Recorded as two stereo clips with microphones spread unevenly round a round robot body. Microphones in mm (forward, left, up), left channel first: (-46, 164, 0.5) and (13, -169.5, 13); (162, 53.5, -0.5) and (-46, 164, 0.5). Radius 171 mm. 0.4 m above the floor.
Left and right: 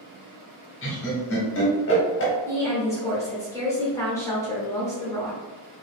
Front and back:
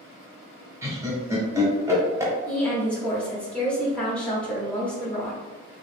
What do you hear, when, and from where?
0.8 s laughter: 80° left, 0.9 m
2.5 s a woman speaking: 45° left, 0.8 m